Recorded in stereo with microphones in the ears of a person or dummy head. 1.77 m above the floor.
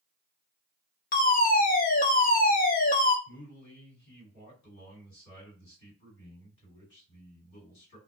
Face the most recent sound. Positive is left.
turn(degrees=60)  # may be behind; listen again after turning